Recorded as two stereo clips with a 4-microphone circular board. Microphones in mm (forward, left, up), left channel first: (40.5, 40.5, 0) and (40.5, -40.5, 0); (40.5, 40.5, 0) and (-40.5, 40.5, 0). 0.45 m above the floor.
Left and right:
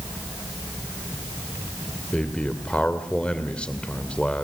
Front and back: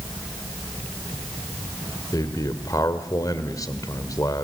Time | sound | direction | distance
2.1 | a man speaking | 20° left | 2.0 m